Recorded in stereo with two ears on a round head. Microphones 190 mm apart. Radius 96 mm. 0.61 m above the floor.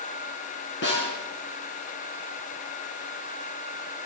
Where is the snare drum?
60° left (ahead or behind), 4.5 m.